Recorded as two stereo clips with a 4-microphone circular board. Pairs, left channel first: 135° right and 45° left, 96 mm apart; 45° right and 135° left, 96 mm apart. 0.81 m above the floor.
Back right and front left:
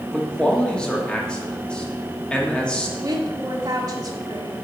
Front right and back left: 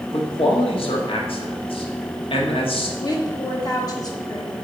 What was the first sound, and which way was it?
A man speaking, 55° right.